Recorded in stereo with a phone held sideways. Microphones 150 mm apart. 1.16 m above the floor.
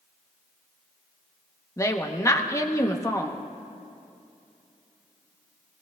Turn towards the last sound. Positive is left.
turn(degrees=20)  # may be behind; listen again after turning